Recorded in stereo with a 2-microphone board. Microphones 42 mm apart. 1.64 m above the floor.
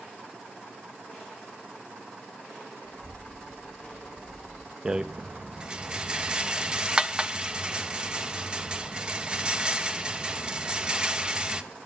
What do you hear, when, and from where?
2.8 s a child speaking: 40° left (ahead or behind), 2.0 m; by 4.8 s 15° right (ahead or behind), 0.7 m
4.8 s a rattle: 20° right (ahead or behind), 0.9 m